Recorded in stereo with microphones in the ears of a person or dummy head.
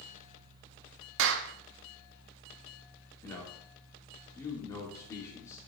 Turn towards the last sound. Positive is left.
turn(degrees=20)  # may be behind; listen again after turning